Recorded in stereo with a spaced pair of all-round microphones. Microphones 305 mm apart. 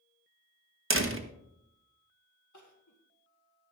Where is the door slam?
40° right (ahead or behind), 1.2 m.